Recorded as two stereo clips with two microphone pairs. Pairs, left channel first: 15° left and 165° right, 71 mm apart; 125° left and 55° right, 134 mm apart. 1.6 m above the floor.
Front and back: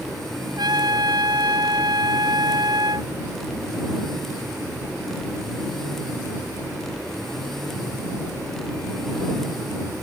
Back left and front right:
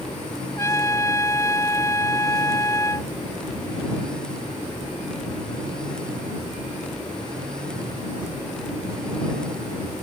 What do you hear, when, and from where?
0.6 s a trumpet: 170° right